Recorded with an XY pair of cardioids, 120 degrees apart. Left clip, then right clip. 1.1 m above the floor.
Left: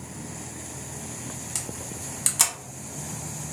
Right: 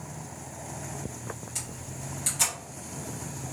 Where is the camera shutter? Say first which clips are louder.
Left 4 dB; 60° left, 1.5 m.